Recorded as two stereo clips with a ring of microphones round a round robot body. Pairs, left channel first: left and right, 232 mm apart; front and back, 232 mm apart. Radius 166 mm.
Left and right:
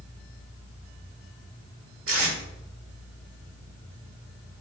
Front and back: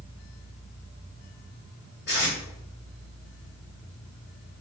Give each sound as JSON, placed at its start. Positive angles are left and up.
{"t": 2.1, "sound": "tape being pulled", "azimuth_deg": -60, "distance_m": 0.9}